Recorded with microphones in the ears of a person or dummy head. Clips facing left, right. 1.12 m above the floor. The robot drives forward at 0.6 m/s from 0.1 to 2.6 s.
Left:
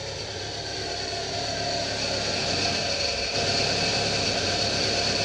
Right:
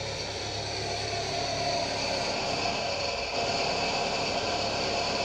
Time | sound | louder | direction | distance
0.0 | an engine running | left 1 dB | 10° left (ahead or behind) | 2.5 m